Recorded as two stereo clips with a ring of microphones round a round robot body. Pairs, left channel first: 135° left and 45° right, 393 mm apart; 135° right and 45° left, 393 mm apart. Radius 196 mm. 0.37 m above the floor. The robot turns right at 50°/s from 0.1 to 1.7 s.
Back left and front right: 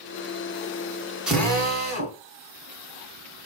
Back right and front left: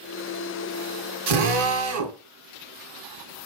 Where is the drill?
40° left, 1.4 m; by 2.2 s 65° left, 1.4 m.